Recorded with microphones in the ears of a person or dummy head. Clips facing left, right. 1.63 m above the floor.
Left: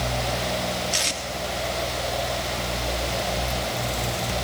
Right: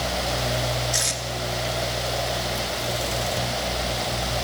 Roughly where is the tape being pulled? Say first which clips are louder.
Even; left.